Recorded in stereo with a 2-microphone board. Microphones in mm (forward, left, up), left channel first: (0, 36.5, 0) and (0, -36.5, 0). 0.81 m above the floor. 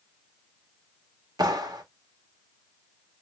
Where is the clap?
70° right (ahead or behind), 1.0 m.